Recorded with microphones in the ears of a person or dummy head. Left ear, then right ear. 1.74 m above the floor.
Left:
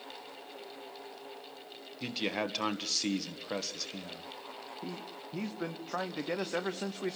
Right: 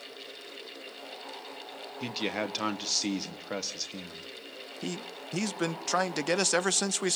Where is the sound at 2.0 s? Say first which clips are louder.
Right 1 dB; 10° right (ahead or behind), 1.1 m.